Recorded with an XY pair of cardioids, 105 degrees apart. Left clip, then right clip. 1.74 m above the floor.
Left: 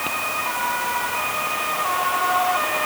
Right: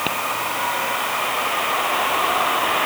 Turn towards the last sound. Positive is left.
No sound to turn to.